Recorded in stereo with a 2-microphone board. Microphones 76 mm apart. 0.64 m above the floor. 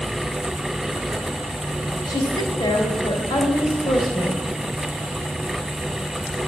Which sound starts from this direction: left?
A woman speaking, at 2.1 s.